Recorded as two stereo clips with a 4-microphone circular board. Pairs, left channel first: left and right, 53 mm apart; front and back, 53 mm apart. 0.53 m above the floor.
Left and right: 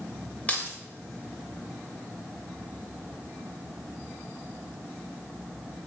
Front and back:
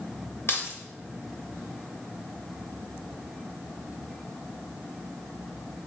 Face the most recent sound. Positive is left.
turn(degrees=30)